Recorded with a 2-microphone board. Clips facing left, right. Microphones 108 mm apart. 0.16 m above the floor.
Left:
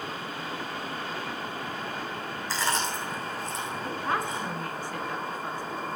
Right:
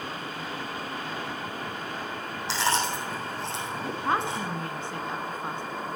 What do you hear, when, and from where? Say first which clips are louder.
2.5 s chewing: right 3 dB; 80° right, 5.5 m
3.8 s a woman speaking: right 3 dB; 25° right (ahead or behind), 1.7 m